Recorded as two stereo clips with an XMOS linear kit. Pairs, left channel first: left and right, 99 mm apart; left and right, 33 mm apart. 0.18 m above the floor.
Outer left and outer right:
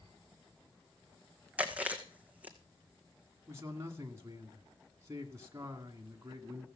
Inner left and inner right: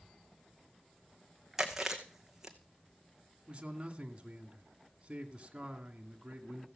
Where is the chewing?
15° right (ahead or behind), 1.9 m.